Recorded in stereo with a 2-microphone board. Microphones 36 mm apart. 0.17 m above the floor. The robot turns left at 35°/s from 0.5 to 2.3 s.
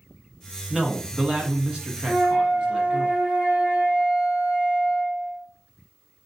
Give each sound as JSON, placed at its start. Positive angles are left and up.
{"t": 0.7, "sound": "a man speaking", "side_deg": 0, "distance_m": 1.2}
{"t": 2.1, "sound": "a flute", "side_deg": -25, "distance_m": 1.3}